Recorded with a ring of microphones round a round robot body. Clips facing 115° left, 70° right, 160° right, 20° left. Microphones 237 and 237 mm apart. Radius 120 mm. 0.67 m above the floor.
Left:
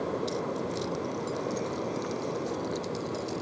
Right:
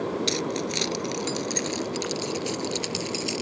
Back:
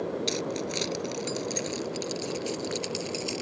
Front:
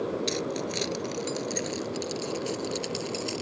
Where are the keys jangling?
70° right; by 3.4 s 75° right.